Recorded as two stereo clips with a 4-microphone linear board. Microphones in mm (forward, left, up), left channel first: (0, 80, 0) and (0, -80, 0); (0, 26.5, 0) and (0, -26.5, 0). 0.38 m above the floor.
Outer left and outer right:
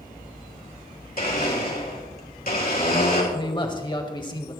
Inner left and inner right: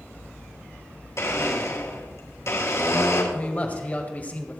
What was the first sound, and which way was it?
A blender, 65° left (ahead or behind).